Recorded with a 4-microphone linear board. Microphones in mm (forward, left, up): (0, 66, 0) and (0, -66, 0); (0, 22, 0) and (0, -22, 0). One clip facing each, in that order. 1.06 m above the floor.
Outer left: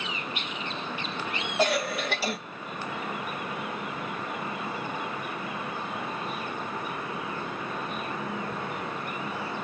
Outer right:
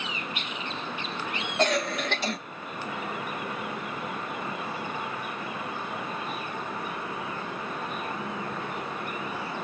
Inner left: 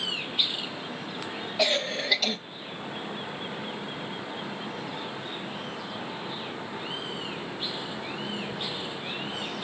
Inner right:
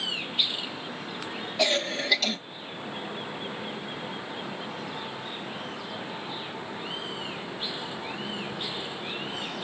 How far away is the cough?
About 1.5 m.